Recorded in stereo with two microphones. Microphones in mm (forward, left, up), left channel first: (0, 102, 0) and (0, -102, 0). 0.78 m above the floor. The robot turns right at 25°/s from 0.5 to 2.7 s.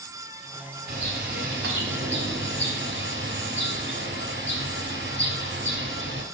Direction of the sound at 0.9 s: 120° right.